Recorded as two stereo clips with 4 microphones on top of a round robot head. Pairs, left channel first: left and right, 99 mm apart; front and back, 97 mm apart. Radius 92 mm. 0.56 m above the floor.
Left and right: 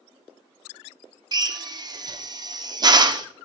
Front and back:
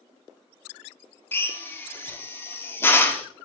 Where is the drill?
60° right, 1.4 m.